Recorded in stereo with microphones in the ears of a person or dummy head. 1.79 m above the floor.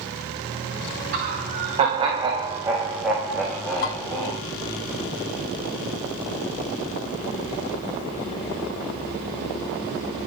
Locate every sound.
1.1 s laughter: 50° right (ahead or behind), 2.0 m; by 4.4 s 15° left (ahead or behind), 3.5 m
3.8 s dishes clattering: 55° left (ahead or behind), 1.9 m